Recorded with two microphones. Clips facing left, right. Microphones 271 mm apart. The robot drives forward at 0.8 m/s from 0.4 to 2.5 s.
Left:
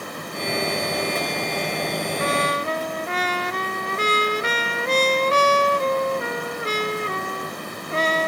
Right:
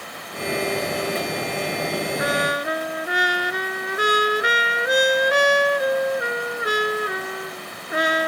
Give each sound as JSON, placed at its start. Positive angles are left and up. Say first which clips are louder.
{"t": 2.2, "sound": "a trumpet", "louder": "even", "side_deg": -10}